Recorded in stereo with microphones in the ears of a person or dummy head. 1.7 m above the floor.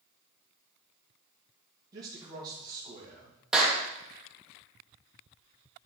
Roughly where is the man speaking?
Right.